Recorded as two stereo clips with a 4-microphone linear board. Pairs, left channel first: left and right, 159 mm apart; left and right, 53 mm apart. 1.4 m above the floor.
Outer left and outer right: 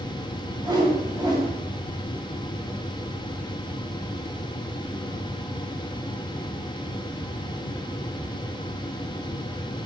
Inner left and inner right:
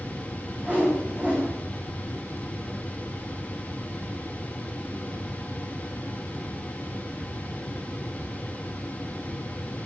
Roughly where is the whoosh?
Right.